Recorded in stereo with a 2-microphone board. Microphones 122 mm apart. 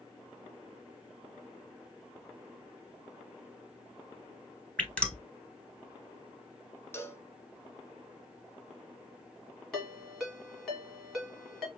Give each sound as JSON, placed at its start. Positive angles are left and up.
{"t": 4.8, "sound": "dripping", "side_deg": 10, "distance_m": 1.0}
{"t": 6.9, "sound": "a cowbell", "side_deg": 20, "distance_m": 0.7}
{"t": 9.7, "sound": "a ringtone", "side_deg": 5, "distance_m": 2.0}